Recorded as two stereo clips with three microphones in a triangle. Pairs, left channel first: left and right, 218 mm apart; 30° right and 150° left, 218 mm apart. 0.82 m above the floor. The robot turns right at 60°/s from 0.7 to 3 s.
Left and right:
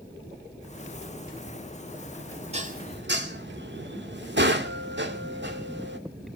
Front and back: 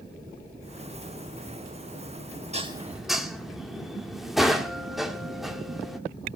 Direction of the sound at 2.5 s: 150° right.